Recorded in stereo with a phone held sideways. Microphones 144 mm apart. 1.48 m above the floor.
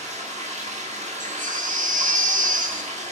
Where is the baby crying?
65° right (ahead or behind), 0.9 m.